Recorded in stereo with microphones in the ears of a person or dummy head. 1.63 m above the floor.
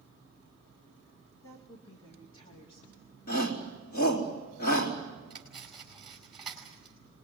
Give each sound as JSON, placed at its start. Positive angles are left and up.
{"t": 1.4, "sound": "a woman speaking", "side_deg": 10, "distance_m": 2.5}
{"t": 3.3, "sound": "a shout", "side_deg": 55, "distance_m": 4.0}
{"t": 5.3, "sound": "cutlery clinking", "side_deg": -5, "distance_m": 5.0}